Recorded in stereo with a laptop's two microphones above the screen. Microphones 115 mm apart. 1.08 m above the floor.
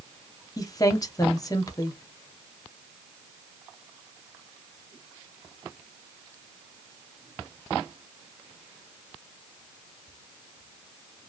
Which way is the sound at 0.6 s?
30° left (ahead or behind).